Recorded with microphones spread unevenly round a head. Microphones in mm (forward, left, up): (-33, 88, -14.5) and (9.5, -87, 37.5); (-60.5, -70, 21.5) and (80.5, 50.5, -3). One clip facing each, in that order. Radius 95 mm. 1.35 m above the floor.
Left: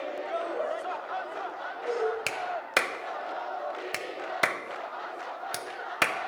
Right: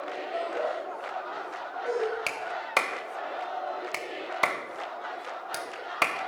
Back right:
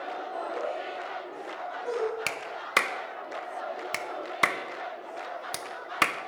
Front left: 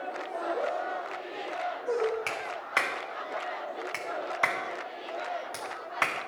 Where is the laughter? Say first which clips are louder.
Right 2 dB, front left 3 dB; 160° right, 6.5 m.